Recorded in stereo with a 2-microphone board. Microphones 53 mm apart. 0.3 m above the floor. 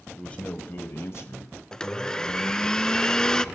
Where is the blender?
10° left (ahead or behind), 0.5 m.